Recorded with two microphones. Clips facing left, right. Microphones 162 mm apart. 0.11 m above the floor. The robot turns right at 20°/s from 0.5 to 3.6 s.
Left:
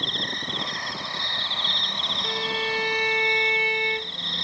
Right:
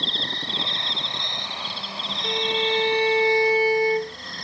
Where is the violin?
20° right (ahead or behind); by 4.2 s 40° right (ahead or behind).